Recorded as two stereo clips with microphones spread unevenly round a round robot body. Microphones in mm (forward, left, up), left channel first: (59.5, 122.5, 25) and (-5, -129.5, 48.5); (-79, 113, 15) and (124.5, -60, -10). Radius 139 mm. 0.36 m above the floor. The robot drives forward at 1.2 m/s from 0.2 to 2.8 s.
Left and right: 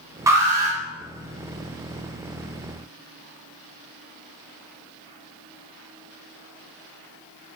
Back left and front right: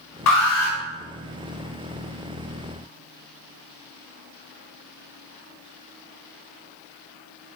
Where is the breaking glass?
I don't hear breaking glass.